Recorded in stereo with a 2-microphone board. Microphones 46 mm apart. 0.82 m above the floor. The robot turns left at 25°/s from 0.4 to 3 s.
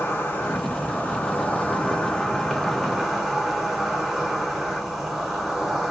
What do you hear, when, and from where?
0.0 s an insect: 60° left, 0.8 m; by 5.9 s 5° right, 0.8 m